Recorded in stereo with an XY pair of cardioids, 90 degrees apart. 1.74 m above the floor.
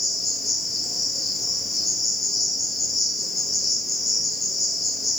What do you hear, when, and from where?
0.0 s an insect: 30° left, 1.2 m